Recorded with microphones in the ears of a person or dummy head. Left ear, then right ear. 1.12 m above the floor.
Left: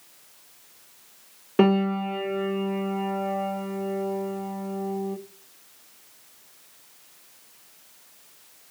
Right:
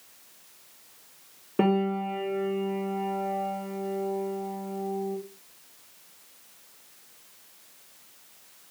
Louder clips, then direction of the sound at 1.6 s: Left 3 dB; 70° left (ahead or behind).